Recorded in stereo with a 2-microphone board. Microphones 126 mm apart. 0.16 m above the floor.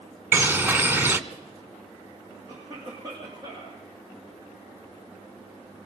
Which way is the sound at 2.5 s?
30° right (ahead or behind).